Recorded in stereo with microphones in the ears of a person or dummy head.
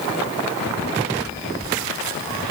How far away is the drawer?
No drawer in this recording.